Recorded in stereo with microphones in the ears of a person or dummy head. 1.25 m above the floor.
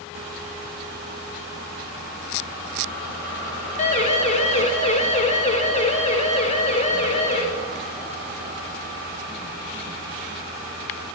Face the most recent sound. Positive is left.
turn(degrees=35)  # may be behind; listen again after turning